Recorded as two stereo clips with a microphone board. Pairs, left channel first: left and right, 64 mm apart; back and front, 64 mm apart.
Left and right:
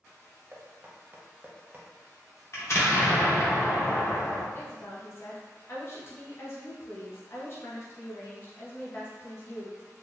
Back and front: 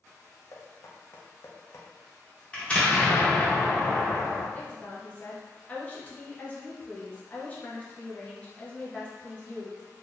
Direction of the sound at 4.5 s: 120° left.